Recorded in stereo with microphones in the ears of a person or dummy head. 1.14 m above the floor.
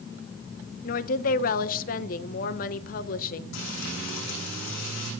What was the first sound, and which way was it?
A woman speaking, 50° left (ahead or behind).